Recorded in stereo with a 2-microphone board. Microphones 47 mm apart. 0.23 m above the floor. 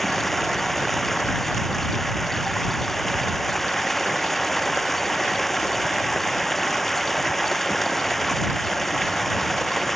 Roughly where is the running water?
Centre.